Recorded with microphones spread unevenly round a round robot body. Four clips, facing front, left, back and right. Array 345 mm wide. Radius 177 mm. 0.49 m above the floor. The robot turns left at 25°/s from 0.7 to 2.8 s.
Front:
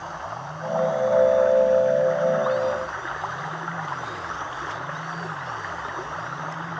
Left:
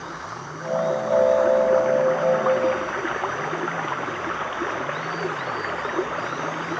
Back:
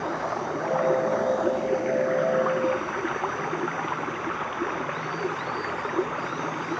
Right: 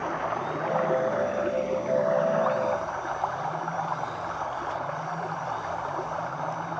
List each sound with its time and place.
0.0 s running water: 160° right; by 6.8 s 145° left